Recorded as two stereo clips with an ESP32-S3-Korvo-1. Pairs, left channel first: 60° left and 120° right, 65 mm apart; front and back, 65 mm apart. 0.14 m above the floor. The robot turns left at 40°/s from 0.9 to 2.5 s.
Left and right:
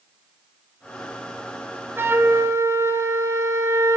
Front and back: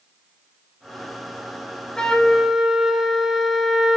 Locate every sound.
2.0 s a flute: 75° right, 1.4 m; by 4.0 s 95° right, 1.4 m